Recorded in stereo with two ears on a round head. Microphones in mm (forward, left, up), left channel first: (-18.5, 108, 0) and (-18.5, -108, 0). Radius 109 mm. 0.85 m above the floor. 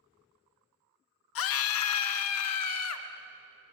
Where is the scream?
60° left (ahead or behind), 0.9 m; by 3.1 s 70° left (ahead or behind), 1.7 m.